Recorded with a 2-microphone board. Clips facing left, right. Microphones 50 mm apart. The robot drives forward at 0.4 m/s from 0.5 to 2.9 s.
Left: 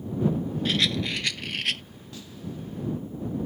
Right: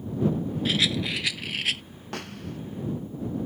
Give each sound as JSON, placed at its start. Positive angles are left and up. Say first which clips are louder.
{"t": 0.7, "sound": "a rattle", "louder": "even", "side_deg": 0}
{"t": 2.1, "sound": "a snare drum", "louder": "right 3 dB", "side_deg": -60}